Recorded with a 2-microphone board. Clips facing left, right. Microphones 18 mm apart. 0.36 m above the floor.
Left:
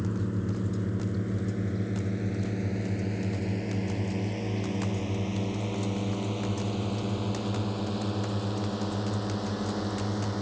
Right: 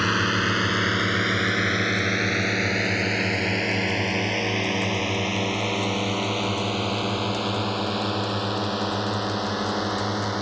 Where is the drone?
75° right (ahead or behind); by 10.4 s 35° right (ahead or behind).